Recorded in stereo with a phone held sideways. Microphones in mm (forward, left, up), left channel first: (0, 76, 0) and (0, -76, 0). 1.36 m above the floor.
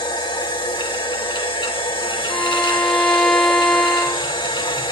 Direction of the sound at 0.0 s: 30° left (ahead or behind).